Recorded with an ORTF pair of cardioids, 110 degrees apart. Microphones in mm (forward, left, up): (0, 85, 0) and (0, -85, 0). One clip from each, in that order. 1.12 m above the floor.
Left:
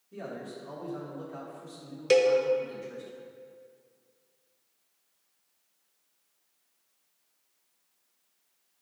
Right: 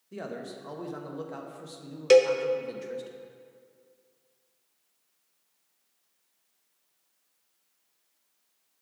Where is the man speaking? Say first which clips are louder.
Right 2 dB; 55° right, 1.1 m.